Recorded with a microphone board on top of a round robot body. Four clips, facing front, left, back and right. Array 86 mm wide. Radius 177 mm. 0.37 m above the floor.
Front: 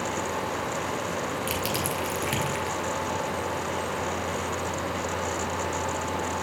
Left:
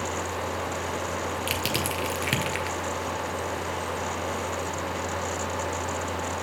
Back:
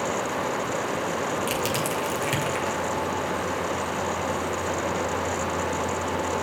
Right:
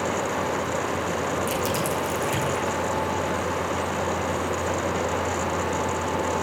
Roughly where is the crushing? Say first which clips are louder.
Right 4 dB, back 3 dB; left.